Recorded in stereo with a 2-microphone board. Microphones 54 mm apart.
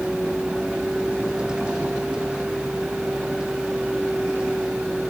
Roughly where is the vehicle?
Centre.